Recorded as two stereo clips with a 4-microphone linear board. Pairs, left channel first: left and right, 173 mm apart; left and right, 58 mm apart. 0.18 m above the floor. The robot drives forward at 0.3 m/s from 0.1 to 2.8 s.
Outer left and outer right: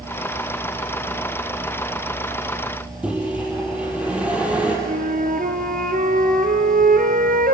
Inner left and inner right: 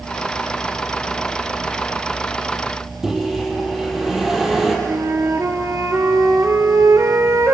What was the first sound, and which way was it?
A microwave, 5° right (ahead or behind).